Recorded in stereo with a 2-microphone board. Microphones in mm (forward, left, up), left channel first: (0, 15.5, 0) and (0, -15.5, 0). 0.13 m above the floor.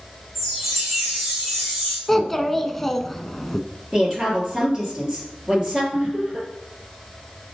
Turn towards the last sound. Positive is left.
turn(degrees=-30)  # may be behind; listen again after turning